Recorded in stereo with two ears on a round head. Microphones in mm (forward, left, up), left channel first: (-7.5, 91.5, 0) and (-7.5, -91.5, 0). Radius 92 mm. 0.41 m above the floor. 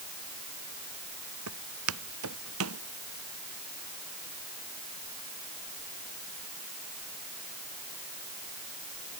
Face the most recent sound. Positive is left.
turn(degrees=-75)  # may be behind; listen again after turning